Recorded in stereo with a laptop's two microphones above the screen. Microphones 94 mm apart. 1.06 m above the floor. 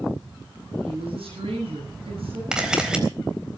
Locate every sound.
0.8 s a woman speaking: 85° right, 9.5 m
2.5 s a camera shutter: 10° right (ahead or behind), 4 m